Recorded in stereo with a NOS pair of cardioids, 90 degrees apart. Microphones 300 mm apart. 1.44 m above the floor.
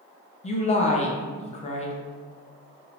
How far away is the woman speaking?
About 0.6 m.